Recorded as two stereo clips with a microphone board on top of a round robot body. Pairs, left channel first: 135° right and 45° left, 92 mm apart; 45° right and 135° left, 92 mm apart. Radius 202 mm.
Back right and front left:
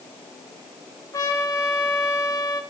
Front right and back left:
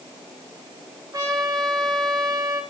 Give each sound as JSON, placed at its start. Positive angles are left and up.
{"t": 1.1, "sound": "a trumpet", "azimuth_deg": 180, "distance_m": 2.0}